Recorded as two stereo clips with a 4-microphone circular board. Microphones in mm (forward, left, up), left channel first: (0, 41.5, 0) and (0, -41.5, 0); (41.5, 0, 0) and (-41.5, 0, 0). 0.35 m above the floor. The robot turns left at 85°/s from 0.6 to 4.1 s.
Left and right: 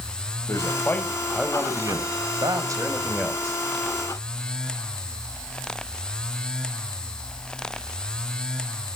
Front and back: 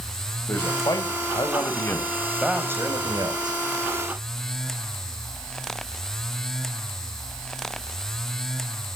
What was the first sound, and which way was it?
A man speaking, 55° left.